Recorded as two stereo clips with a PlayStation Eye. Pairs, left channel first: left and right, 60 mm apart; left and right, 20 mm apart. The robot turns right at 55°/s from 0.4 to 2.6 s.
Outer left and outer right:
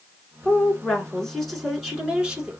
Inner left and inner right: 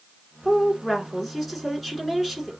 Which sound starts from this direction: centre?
A woman speaking, at 0.4 s.